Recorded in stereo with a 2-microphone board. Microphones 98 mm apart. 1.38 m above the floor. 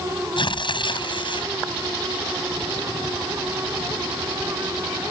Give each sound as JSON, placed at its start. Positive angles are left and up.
{"t": 0.4, "sound": "tearing paper", "side_deg": 55}